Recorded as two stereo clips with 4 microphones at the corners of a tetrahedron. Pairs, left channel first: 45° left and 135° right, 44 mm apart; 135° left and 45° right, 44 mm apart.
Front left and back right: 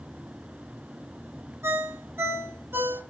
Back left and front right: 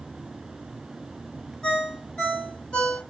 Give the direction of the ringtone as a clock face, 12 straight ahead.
5 o'clock.